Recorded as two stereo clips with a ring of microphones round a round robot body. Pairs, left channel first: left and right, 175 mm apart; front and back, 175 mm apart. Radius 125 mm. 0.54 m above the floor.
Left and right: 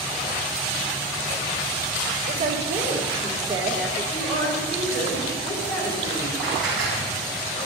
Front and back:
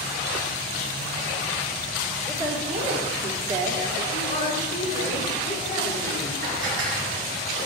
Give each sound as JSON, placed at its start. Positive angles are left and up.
{"t": 2.3, "sound": "a woman speaking", "azimuth_deg": -120, "distance_m": 1.9}
{"t": 4.1, "sound": "a woman speaking", "azimuth_deg": 45, "distance_m": 5.5}
{"t": 6.4, "sound": "dishes clattering", "azimuth_deg": 180, "distance_m": 4.5}